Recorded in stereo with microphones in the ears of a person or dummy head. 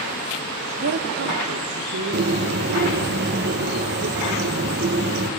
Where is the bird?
50° right (ahead or behind), 1.1 m.